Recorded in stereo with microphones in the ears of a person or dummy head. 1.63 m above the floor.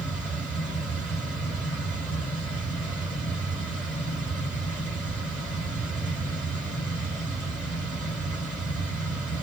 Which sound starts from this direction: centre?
A fan, at 0.0 s.